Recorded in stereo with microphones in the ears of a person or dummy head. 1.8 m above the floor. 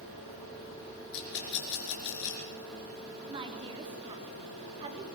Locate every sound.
1.1 s a rattle: 65° left (ahead or behind), 5 m
3.3 s a woman speaking: 30° right (ahead or behind), 3.5 m